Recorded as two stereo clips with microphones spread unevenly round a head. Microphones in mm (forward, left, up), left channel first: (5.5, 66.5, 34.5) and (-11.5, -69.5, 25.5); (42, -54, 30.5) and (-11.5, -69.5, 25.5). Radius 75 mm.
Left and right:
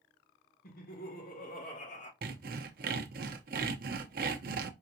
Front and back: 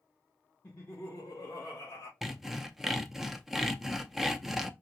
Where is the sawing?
75° right, 0.7 m.